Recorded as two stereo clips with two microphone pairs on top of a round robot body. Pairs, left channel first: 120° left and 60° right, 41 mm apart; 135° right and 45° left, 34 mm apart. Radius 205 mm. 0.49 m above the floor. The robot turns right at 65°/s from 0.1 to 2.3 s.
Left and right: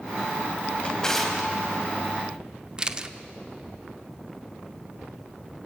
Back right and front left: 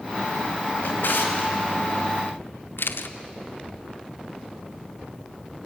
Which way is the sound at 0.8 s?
175° right.